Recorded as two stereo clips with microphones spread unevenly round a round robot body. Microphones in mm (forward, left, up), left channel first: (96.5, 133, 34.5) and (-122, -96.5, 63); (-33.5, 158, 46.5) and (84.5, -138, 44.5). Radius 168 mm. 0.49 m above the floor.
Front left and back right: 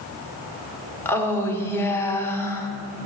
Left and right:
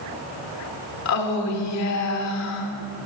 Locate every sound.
1.1 s a woman speaking: 125° left, 1.8 m